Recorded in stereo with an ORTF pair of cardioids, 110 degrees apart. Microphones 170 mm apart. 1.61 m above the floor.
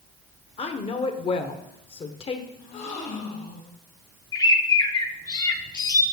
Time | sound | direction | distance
0.6 | a woman speaking | 35° left | 1.0 m
2.6 | a gasp | 60° left | 2.0 m
4.3 | a bird | 25° left | 0.8 m